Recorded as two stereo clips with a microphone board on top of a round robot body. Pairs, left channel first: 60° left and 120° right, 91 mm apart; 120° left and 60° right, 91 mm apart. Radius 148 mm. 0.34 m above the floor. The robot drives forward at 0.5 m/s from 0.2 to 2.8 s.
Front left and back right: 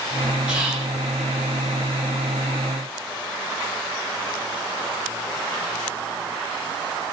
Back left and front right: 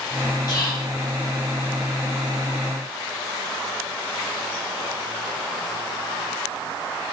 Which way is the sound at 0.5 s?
160° left.